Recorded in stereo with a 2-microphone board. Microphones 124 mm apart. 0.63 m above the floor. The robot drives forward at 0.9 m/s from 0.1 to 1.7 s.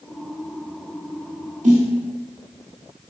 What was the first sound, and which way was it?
A snare drum, 80° right.